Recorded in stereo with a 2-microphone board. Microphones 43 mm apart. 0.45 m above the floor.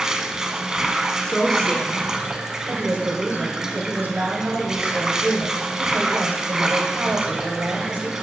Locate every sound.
0.0 s running water: 15° right (ahead or behind), 0.8 m
1.2 s a woman speaking: 20° left (ahead or behind), 1.3 m
2.7 s a woman speaking: 55° right (ahead or behind), 2 m